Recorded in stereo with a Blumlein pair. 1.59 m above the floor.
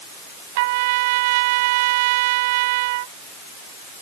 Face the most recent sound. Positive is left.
turn(degrees=-50)